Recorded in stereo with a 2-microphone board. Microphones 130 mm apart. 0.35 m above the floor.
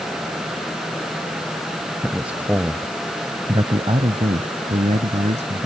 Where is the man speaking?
5° right (ahead or behind); by 5.7 s 70° right (ahead or behind).